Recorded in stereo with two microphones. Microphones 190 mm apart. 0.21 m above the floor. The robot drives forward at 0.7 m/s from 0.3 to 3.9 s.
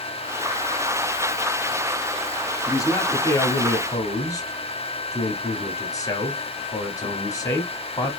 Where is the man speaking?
15° left (ahead or behind), 1.3 m; by 8.2 s 20° left (ahead or behind), 1.2 m.